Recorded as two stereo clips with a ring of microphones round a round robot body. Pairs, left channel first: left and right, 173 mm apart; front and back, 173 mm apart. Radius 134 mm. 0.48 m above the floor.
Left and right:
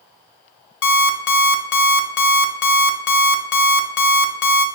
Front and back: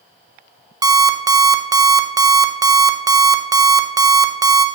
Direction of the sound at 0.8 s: 110° left.